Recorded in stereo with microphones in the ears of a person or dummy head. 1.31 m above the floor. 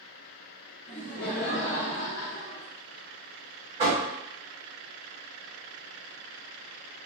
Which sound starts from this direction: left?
Laughter, at 0.9 s.